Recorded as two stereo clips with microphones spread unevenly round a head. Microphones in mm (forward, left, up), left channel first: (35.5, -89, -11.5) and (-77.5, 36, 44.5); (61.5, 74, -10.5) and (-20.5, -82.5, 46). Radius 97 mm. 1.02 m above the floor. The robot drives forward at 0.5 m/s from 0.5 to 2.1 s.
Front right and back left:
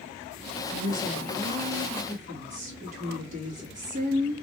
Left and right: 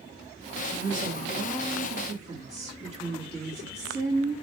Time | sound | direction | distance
0.7 | a woman speaking | 175° right | 1.3 m